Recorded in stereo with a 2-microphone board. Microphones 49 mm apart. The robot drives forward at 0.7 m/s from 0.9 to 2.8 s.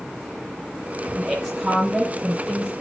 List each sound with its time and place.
1.1 s a woman speaking: 5° right (ahead or behind), 6 m